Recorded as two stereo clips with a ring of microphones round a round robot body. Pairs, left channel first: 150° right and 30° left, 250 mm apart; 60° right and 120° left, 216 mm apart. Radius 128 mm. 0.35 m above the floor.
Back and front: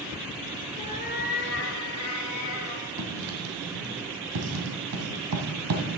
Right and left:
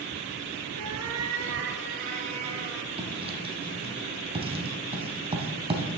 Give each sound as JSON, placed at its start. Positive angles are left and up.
{"t": 0.8, "sound": "a cat meowing", "azimuth_deg": 140, "distance_m": 1.4}
{"t": 3.0, "sound": "writing", "azimuth_deg": 55, "distance_m": 1.9}